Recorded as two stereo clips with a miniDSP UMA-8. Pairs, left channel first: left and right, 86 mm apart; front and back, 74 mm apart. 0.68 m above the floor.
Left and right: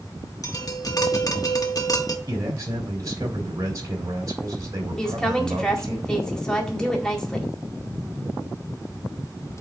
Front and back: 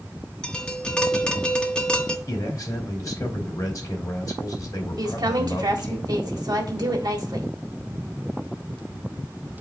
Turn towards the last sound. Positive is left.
turn(degrees=170)